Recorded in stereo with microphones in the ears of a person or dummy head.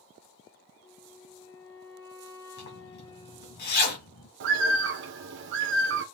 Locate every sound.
0.8 s a flute: 20° left (ahead or behind), 0.7 m
2.6 s a zipper: 50° left (ahead or behind), 1.5 m
4.4 s a bird: 65° right (ahead or behind), 0.9 m